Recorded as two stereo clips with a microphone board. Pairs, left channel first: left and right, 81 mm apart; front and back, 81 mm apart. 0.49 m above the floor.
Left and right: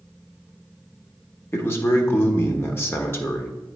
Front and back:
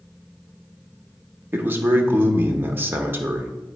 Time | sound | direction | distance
1.5 | a man speaking | 130° left | 1.1 m